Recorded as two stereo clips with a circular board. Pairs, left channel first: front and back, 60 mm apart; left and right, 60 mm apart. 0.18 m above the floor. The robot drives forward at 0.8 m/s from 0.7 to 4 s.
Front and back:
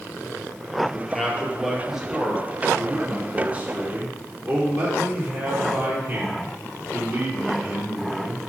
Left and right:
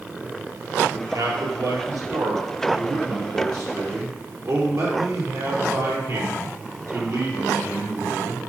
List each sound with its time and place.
0.9 s a man speaking: 85° right, 4 m; by 8.4 s 120° right, 4.5 m